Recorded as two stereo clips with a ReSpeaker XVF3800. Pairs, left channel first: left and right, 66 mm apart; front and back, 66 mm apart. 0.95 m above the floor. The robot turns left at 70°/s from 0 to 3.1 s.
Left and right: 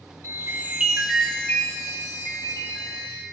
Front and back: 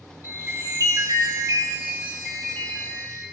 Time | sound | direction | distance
0.2 | a chime | 125° right | 2.5 m